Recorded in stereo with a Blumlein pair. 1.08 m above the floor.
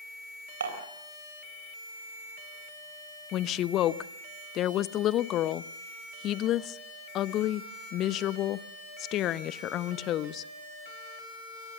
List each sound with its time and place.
0.6 s dishes clattering: 70° right, 3.5 m
3.3 s a woman speaking: 35° left, 0.8 m